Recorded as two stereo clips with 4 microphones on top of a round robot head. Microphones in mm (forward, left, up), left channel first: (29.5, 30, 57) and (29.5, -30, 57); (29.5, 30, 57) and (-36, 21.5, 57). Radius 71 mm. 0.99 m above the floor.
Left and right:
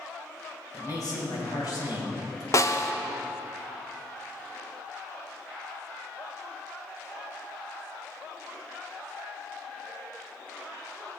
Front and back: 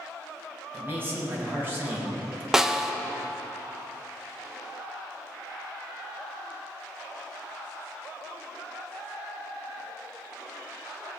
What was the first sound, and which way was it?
A man speaking, 130° left.